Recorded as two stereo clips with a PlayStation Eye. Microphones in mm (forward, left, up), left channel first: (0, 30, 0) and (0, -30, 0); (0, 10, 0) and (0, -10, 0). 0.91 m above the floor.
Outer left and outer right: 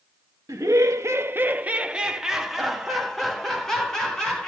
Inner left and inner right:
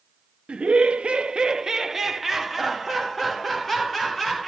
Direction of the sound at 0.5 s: 75° right (ahead or behind).